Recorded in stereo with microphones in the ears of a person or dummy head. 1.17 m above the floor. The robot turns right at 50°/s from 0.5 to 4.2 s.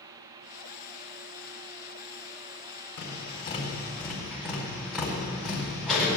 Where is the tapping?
60° left (ahead or behind), 4.5 m; by 6.2 s 5° right (ahead or behind), 4.5 m.